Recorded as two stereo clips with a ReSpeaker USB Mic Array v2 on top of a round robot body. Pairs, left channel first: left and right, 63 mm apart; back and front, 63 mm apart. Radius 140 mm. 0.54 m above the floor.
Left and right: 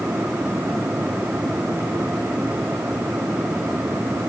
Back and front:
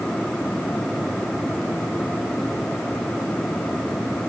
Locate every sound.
Only background noise.